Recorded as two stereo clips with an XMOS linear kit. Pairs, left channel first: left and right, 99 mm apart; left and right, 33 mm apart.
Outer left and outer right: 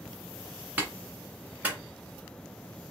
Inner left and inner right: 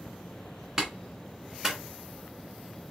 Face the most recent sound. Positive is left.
turn(degrees=-15)  # may be behind; listen again after turning